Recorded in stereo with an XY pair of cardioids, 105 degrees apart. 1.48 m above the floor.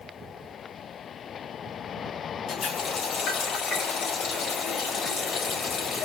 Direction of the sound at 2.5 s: 65° left.